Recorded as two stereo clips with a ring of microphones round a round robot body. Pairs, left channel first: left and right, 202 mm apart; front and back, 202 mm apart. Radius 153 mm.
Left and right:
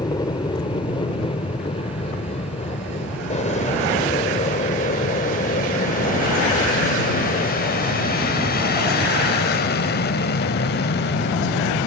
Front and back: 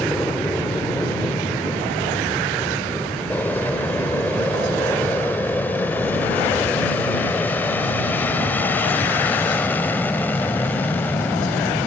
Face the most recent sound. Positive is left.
turn(degrees=80)